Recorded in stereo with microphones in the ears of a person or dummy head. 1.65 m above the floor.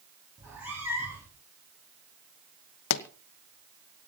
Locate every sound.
0.4 s a cat meowing: 10° right (ahead or behind), 6.5 m
2.9 s a pop: 60° left (ahead or behind), 1.0 m